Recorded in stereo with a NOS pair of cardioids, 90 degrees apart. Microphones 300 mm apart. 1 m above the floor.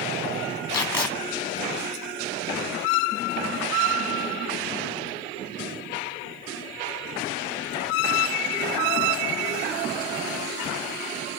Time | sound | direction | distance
0.7 | tape being pulled | 10° left | 2.5 m